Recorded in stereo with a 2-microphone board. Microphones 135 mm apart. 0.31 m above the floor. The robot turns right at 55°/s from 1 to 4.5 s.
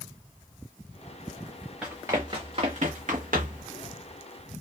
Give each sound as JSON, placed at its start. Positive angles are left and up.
{"t": 1.8, "sound": "running footsteps", "side_deg": -5, "distance_m": 1.7}